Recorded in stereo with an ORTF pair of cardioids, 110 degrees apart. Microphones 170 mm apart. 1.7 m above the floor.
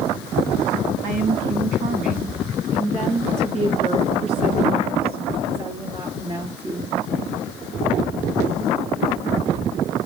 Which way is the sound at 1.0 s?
65° right.